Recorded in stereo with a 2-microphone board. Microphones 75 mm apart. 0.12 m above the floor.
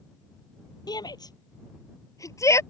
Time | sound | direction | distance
0.9 | a shout | 65° left (ahead or behind) | ?